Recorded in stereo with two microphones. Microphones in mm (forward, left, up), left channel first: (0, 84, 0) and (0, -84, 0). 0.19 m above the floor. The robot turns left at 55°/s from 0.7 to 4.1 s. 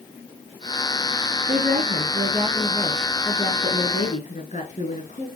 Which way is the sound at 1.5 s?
90° right.